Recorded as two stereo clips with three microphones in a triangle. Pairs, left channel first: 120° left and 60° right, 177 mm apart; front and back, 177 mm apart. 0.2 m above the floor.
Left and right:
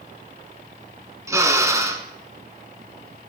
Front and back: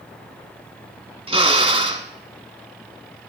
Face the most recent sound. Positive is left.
turn(degrees=-130)